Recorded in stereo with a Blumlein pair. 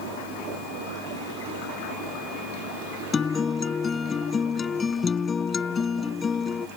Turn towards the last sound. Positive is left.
turn(degrees=20)